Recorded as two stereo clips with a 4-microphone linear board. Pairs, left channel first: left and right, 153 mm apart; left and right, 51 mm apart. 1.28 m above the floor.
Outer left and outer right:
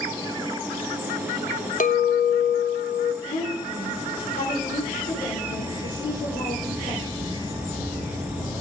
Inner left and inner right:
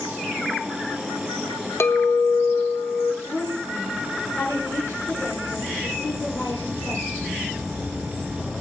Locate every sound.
1.8 s a clink: 60° left (ahead or behind), 1.0 m
3.2 s a woman speaking: 70° left (ahead or behind), 4 m